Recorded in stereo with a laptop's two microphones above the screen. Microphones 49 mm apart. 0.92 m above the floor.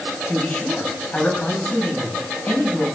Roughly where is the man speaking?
Left.